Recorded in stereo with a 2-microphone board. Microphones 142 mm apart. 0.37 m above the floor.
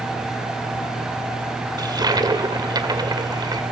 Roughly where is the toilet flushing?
Right.